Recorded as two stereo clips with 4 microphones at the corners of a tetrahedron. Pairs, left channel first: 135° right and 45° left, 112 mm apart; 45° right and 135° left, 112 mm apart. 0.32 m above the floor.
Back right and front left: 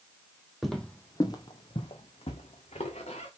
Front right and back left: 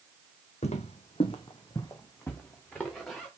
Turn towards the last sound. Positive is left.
turn(degrees=-130)